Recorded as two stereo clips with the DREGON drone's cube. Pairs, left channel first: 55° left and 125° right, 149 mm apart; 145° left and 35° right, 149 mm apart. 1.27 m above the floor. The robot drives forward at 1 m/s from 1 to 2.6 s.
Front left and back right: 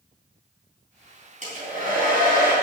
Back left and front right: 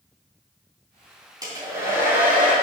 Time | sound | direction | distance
1.4 | a hair dryer | 95° right | 3 m